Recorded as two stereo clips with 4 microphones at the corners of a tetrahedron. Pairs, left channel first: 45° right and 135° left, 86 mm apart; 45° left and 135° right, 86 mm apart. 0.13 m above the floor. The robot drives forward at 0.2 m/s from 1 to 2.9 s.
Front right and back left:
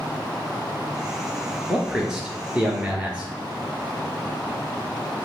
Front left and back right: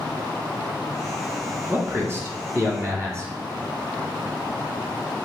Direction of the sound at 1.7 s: 150° right.